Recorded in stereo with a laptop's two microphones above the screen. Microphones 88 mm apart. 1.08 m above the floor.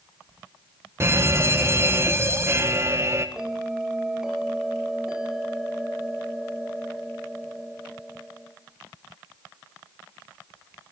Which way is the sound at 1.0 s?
30° right (ahead or behind).